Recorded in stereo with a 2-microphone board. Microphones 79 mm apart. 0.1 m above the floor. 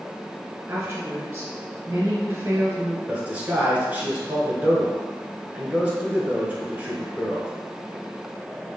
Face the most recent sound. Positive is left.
turn(degrees=-20)  # may be behind; listen again after turning